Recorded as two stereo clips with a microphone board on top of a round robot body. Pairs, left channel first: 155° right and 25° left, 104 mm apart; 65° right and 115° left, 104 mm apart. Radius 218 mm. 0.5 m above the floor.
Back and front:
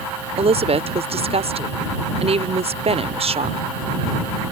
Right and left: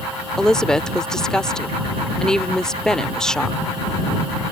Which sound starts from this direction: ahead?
A woman speaking, at 0.4 s.